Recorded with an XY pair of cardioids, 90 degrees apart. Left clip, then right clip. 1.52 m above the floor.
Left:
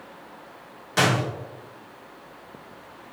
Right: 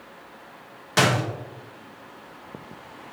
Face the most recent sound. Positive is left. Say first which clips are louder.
# right 1 dB
turn(degrees=-40)